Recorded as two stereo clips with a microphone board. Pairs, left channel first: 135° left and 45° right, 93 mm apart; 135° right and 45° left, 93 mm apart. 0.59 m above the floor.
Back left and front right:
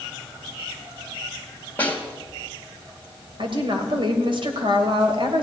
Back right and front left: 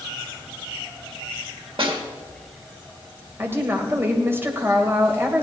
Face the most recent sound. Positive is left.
turn(degrees=-20)